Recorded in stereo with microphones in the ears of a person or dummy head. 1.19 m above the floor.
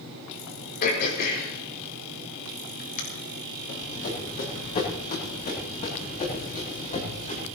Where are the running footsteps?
60° left (ahead or behind), 7.5 m; by 7.5 s 40° left (ahead or behind), 10 m.